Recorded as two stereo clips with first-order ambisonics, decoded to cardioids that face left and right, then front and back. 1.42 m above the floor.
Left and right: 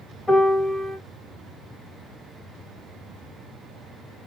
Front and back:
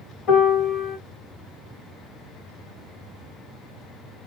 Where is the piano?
10° left, 1.4 m.